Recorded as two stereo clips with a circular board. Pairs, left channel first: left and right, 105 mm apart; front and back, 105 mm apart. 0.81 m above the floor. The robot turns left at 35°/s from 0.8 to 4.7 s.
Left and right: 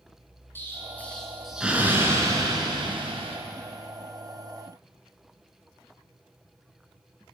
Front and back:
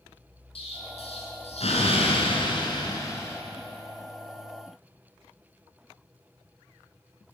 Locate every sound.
0.6 s an explosion: 20° left, 4 m; by 3.4 s 70° right, 4 m